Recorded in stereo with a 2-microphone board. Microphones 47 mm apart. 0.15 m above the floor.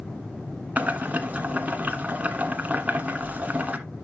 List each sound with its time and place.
0.8 s boiling: 30° right (ahead or behind), 1.4 m